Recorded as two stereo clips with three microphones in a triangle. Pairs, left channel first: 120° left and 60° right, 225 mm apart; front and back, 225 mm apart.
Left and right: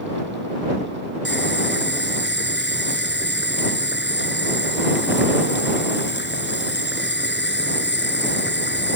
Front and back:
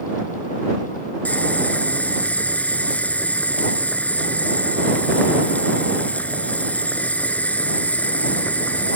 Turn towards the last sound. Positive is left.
turn(degrees=85)